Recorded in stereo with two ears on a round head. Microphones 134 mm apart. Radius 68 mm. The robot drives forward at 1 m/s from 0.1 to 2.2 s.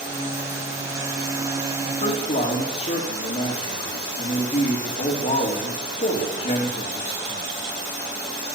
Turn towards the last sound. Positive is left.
turn(degrees=50)  # may be behind; listen again after turning